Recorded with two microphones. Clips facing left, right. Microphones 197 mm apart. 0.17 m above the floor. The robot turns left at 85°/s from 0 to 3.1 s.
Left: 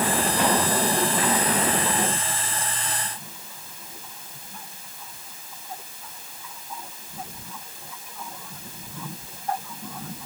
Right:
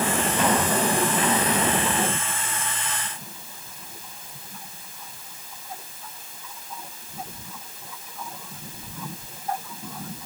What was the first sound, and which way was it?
Only background noise.